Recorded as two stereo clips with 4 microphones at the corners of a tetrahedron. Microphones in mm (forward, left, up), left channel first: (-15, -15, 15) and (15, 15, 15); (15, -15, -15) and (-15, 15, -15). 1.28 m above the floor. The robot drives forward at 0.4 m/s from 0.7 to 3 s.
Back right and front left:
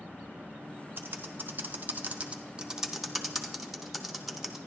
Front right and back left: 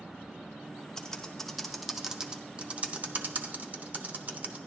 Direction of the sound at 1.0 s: 25° left.